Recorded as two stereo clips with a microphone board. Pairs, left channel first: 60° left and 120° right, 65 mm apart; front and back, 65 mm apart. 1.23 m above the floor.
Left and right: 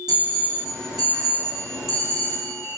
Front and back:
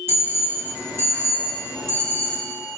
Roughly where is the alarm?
Behind right.